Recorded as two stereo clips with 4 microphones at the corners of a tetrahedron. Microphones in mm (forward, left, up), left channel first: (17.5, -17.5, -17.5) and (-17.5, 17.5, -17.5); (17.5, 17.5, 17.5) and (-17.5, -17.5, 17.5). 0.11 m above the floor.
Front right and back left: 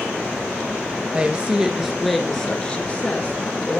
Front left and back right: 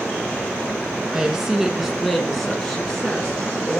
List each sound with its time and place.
1.1 s a woman speaking: 160° left, 1.8 m; by 3.8 s 25° right, 2 m